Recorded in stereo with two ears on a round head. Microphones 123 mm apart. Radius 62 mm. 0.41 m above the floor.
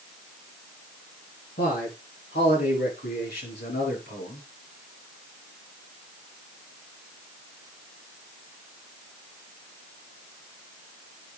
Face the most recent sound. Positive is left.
turn(degrees=80)